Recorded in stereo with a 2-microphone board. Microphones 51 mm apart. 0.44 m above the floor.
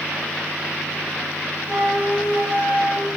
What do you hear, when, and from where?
1.7 s a flute: 25° left (ahead or behind), 1.4 m